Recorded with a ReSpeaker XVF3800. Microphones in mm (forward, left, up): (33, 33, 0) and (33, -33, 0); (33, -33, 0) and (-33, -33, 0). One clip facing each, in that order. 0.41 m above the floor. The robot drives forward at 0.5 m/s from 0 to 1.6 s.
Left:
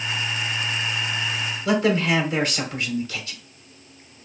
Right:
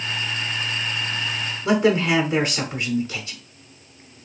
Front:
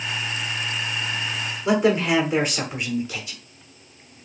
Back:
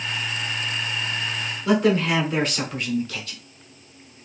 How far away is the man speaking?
About 0.8 m.